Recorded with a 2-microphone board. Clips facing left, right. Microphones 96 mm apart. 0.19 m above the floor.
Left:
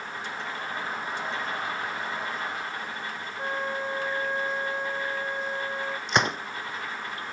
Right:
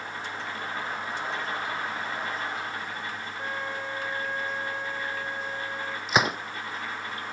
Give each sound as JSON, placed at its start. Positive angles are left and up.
{"t": 3.4, "sound": "a flute", "side_deg": 20}
{"t": 6.1, "sound": "a gunshot", "side_deg": -5}